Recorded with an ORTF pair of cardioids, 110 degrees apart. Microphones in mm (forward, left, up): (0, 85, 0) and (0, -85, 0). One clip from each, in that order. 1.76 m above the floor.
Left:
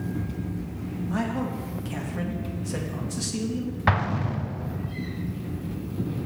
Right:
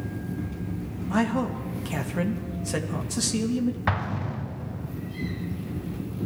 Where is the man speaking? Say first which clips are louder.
Right 4 dB; 30° right, 2.5 m.